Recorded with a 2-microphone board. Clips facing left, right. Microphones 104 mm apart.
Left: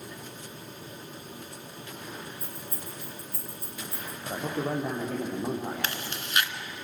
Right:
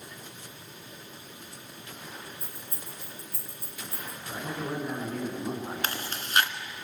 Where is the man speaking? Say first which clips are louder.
Left 4 dB; 75° left (ahead or behind), 8.5 m.